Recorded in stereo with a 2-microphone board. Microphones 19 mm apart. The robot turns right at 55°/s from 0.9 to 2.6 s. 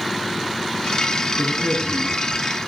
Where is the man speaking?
85° left, 5.5 m; by 2.4 s 140° left, 5.5 m.